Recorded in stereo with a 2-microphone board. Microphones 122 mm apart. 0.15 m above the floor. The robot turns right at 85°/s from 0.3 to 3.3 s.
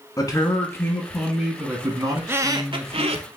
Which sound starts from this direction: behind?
A squeak, at 2.2 s.